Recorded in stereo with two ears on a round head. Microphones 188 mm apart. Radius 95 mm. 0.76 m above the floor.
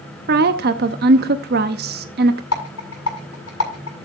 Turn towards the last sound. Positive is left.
turn(degrees=80)